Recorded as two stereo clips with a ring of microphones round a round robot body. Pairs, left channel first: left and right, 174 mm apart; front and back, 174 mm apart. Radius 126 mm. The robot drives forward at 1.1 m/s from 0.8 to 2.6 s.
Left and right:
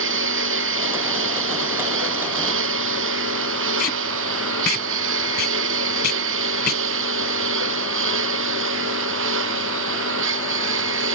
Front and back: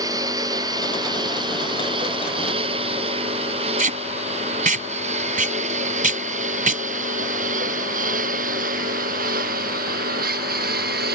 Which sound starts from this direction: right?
A lawn mower, at 0.0 s.